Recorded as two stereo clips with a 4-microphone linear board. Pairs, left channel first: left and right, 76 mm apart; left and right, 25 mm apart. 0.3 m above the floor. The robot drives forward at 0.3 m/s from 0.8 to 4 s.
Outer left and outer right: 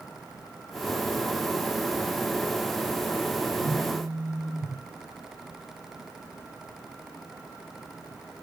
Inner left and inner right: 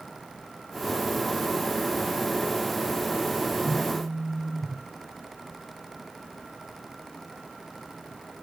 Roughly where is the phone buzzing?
Left.